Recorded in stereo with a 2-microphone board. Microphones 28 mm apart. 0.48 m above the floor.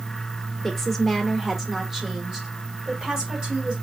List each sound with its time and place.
0.6 s a woman speaking: 10° left (ahead or behind), 0.9 m; by 3.7 s 25° right (ahead or behind), 2 m